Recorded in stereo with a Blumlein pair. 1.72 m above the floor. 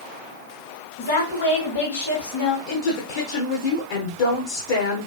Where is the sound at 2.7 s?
55° left, 1.0 m.